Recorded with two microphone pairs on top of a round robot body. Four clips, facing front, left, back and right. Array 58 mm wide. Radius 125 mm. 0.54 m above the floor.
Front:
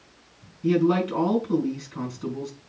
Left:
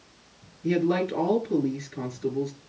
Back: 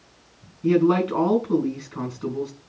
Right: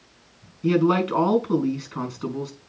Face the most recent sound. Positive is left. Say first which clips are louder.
# right 4 dB, back 3 dB
turn(degrees=-90)